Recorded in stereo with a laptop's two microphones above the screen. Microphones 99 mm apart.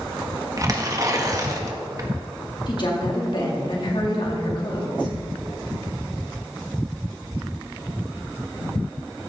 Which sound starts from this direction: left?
A woman speaking, at 2.7 s.